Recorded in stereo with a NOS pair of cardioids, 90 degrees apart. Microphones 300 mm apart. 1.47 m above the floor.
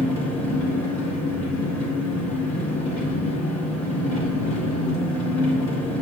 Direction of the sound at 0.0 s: 65° left.